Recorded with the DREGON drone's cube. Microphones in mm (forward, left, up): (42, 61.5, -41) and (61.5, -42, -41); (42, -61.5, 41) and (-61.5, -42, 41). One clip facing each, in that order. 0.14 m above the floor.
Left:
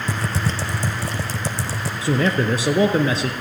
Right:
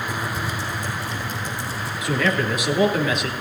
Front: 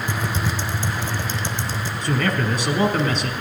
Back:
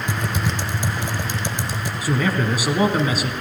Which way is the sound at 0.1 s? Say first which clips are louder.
Left 2 dB, back 2 dB; 95° left.